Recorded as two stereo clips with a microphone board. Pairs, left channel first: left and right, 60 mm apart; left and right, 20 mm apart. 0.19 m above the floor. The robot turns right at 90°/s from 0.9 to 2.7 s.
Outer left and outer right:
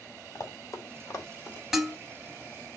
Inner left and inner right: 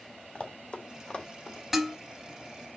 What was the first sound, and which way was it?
Running footsteps, 75° left (ahead or behind).